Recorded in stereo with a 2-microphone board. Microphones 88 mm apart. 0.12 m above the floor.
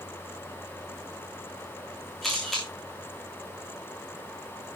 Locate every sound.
2.2 s a camera shutter: centre (ahead or behind), 7.5 m